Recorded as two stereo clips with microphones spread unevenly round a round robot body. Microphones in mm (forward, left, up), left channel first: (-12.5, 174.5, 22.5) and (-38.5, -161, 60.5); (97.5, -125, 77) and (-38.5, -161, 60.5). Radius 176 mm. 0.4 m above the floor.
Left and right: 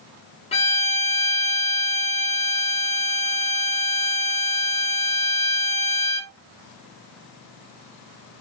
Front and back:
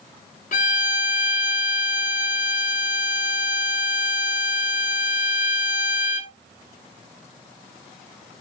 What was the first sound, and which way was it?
A violin, 25° left.